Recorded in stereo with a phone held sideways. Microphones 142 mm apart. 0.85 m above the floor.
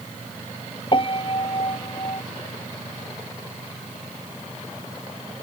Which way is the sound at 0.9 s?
40° left (ahead or behind).